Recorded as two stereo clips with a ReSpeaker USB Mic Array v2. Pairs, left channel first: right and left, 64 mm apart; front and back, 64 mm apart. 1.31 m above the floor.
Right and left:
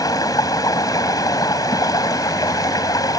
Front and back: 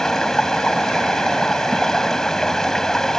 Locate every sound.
0.0 s running water: 80° right